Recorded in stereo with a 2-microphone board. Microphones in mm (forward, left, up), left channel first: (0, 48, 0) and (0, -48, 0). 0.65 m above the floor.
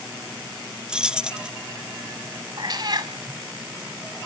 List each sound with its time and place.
0.9 s keys jangling: 10° right (ahead or behind), 0.5 m
2.6 s a cat meowing: 45° right (ahead or behind), 1.7 m